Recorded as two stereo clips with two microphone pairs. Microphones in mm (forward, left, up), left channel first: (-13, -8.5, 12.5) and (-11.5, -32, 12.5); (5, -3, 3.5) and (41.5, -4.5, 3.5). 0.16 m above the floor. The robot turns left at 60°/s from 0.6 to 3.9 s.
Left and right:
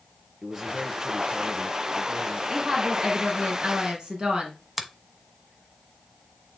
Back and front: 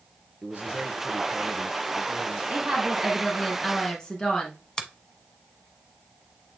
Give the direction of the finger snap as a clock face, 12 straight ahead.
5 o'clock.